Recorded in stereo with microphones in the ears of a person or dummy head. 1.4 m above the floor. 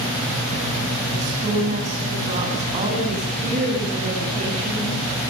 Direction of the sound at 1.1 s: 30° right (ahead or behind).